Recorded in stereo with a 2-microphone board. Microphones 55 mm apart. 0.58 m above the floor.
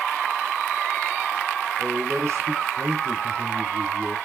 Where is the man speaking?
55° right (ahead or behind), 1.1 m.